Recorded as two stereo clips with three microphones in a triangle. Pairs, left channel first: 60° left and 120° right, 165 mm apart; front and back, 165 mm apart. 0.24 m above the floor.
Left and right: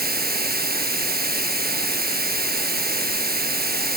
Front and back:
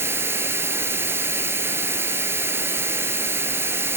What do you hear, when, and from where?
0.0 s running water: 105° right, 1.5 m